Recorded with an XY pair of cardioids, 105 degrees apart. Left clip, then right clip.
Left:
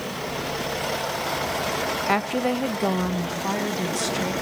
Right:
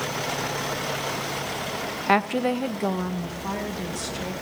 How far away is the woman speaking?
About 0.6 m.